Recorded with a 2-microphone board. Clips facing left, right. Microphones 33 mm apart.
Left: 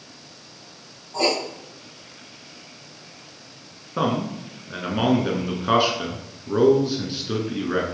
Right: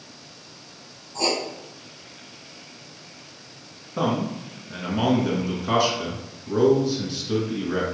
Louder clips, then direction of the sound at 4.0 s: Left 1 dB; 25° left (ahead or behind).